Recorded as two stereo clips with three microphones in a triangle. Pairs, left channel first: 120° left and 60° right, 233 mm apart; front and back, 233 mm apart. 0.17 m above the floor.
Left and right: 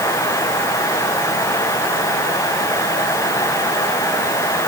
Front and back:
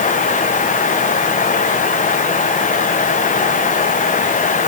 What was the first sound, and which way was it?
Only background noise.